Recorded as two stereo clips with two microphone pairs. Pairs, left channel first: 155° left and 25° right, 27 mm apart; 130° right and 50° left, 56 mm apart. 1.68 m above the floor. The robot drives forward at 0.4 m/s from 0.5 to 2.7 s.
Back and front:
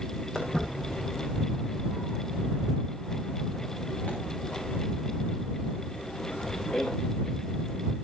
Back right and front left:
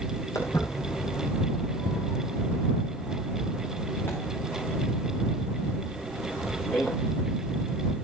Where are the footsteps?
135° right, 5.5 m; by 6.9 s 170° left, 9.5 m.